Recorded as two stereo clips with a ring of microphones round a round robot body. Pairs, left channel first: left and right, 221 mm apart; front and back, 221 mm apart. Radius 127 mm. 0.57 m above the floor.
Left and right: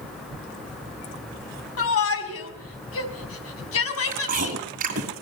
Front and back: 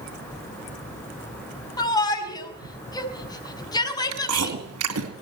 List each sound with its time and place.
1.8 s a shout: 70° left, 5.5 m
4.1 s chewing: 150° right, 2.5 m